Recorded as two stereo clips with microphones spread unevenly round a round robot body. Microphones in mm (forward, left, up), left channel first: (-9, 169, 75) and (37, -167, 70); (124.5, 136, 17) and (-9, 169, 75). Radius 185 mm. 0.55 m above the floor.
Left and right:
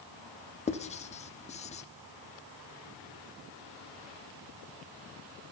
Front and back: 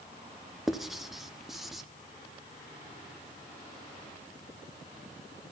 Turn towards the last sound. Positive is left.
turn(degrees=40)